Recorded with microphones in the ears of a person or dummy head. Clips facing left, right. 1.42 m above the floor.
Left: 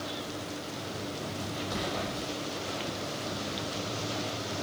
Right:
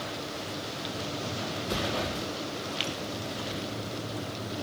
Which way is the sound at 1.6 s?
45° right (ahead or behind).